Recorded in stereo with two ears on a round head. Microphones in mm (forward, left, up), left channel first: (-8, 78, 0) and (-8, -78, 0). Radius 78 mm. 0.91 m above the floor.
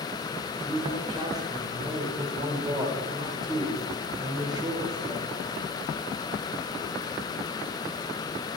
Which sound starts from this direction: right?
A man speaking, at 0.5 s.